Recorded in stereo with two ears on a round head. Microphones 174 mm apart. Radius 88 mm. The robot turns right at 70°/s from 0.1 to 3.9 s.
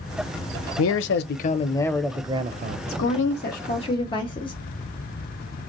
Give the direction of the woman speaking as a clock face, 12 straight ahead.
9 o'clock.